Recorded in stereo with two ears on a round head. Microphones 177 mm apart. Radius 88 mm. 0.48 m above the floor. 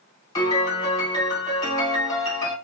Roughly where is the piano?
Left.